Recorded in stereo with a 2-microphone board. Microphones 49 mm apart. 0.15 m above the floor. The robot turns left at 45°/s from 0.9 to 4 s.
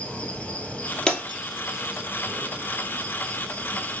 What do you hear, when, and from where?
0.0 s an insect: 25° left, 1.9 m; by 4.0 s 115° right, 1.9 m
1.1 s breaking glass: 15° left (ahead or behind), 1.7 m; by 1.4 s 30° left (ahead or behind), 1.7 m